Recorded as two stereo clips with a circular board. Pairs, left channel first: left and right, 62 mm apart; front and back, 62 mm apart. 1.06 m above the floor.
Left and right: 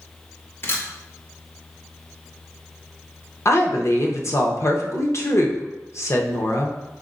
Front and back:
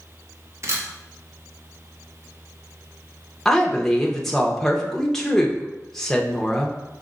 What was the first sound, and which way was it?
A camera shutter, 140° left.